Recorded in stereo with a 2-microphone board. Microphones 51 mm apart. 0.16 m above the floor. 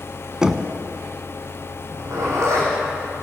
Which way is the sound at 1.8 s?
80° right.